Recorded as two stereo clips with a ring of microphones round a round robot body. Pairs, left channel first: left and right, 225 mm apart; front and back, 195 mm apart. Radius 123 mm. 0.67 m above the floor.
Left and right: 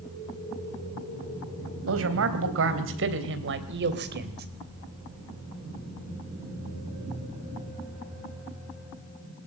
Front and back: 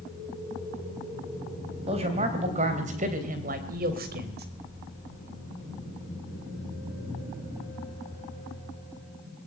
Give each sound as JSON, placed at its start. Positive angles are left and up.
{"t": 1.9, "sound": "a man speaking", "azimuth_deg": -115, "distance_m": 3.5}